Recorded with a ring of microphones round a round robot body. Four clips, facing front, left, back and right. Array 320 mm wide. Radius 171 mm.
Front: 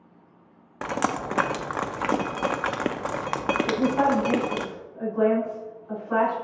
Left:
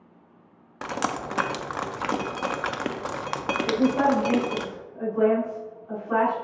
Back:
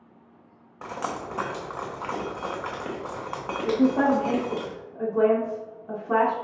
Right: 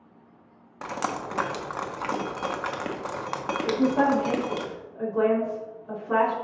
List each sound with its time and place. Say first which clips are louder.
0.8 s dripping: left 2 dB, front 5 dB; 10° left, 0.5 m
3.6 s a woman speaking: even, back 3 dB; 165° right, 3 m